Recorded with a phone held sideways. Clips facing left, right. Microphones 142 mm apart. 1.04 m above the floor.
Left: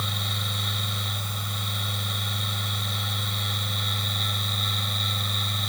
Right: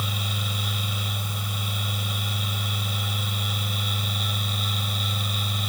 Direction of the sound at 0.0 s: 5° right (ahead or behind).